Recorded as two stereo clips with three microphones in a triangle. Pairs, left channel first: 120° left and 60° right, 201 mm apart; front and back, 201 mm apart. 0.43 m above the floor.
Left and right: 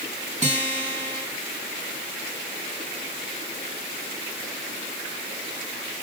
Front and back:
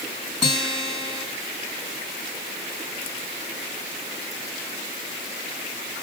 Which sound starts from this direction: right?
A guitar, at 0.4 s.